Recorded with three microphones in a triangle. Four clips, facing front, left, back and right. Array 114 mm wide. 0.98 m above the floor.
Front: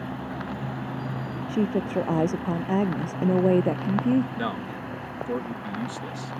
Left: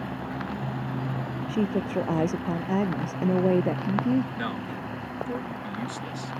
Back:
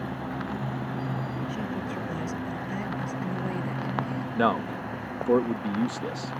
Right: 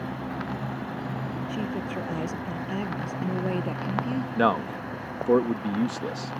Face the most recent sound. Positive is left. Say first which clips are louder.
# right 8 dB, back 5 dB
turn(degrees=-120)